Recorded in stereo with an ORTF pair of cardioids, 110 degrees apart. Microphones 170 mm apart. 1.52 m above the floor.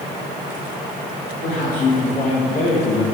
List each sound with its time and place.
1.4 s a man speaking: 55° left, 3.5 m; by 3.0 s 40° left, 1.9 m